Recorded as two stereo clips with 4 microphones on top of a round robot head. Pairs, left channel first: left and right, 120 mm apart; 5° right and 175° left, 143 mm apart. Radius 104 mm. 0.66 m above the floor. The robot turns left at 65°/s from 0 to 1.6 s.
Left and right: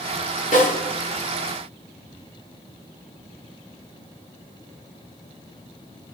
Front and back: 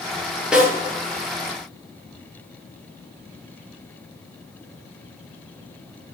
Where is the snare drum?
90° left, 8.5 m; by 0.7 s 80° left, 8.5 m.